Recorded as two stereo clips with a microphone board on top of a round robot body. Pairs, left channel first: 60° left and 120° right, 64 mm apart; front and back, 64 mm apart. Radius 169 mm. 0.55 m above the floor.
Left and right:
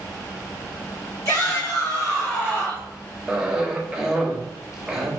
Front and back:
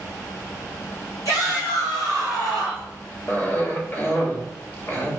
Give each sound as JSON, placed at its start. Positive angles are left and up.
{"t": 1.2, "sound": "a shout", "azimuth_deg": 30, "distance_m": 2.5}
{"t": 3.3, "sound": "a cough", "azimuth_deg": -40, "distance_m": 1.5}